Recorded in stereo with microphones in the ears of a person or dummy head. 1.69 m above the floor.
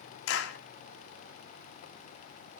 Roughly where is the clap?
Left.